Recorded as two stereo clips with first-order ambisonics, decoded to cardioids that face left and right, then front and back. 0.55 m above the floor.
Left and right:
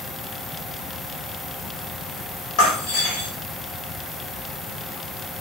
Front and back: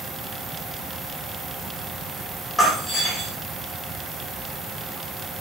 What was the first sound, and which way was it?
Breaking glass, 90° left.